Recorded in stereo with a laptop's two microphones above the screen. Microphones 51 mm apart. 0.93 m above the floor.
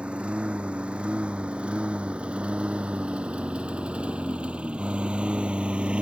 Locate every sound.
0.0 s a lawn mower: 25° right (ahead or behind); by 6.0 s 20° right (ahead or behind)